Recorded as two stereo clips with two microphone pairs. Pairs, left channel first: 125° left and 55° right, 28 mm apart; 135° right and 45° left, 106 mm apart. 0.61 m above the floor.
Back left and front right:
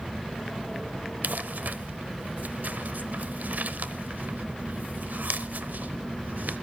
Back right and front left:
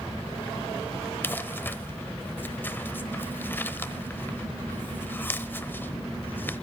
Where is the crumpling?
60° right, 1.0 m.